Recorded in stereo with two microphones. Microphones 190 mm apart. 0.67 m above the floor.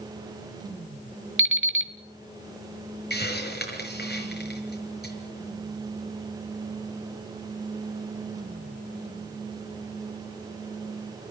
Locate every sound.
1.4 s an alarm clock: 85° right, 1.5 m
3.1 s a hiss: 60° left (ahead or behind), 5.5 m